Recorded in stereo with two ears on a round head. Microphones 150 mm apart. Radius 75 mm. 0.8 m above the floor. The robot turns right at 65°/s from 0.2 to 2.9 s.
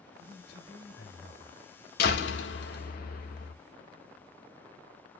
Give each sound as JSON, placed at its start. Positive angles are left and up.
{"t": 0.2, "sound": "a man speaking", "azimuth_deg": 40, "distance_m": 2.5}
{"t": 2.0, "sound": "a door slam", "azimuth_deg": 60, "distance_m": 1.8}